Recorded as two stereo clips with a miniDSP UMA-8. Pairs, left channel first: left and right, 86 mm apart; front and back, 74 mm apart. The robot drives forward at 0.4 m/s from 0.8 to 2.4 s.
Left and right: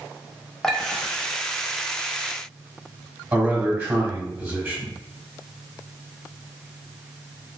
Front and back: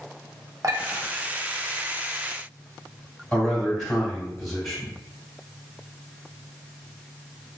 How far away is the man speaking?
About 1.5 m.